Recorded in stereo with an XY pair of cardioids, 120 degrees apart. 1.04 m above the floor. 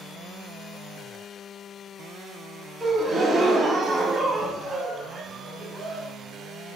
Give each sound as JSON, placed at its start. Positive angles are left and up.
{"t": 2.8, "sound": "a gasp", "azimuth_deg": -30, "distance_m": 0.6}